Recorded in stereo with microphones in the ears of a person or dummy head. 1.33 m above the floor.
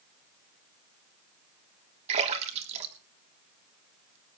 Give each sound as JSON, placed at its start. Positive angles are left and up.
{"t": 2.1, "sound": "a splash", "side_deg": -35, "distance_m": 3.0}